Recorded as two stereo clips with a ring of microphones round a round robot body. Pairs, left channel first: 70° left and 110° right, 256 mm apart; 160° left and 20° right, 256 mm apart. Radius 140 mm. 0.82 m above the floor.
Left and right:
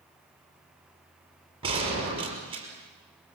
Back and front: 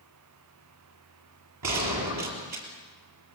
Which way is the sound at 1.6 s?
40° right.